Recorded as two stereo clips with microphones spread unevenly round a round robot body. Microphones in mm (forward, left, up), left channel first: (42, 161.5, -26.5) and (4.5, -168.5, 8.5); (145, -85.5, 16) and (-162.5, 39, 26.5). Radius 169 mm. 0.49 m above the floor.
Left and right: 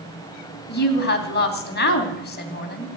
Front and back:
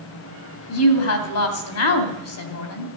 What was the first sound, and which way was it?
A woman speaking, 25° left.